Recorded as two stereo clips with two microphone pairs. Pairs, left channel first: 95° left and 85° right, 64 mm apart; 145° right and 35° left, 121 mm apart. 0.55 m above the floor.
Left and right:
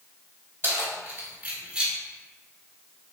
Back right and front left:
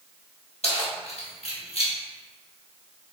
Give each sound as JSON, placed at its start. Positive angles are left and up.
{"t": 0.6, "sound": "keys jangling", "azimuth_deg": -130, "distance_m": 1.5}